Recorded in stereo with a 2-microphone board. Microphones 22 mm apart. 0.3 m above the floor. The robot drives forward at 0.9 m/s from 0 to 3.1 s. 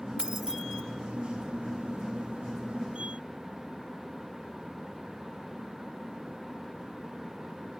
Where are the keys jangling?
30° right (ahead or behind), 0.6 m; by 0.8 s 20° right (ahead or behind), 0.8 m.